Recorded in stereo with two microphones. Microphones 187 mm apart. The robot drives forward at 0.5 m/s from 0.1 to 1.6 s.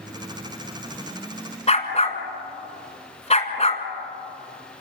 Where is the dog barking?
35° left (ahead or behind), 2.0 m.